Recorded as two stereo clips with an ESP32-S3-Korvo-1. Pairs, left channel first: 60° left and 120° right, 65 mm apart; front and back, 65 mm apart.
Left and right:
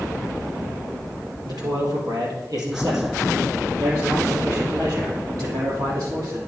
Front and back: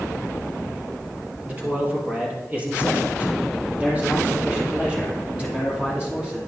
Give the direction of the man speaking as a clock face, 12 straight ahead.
4 o'clock.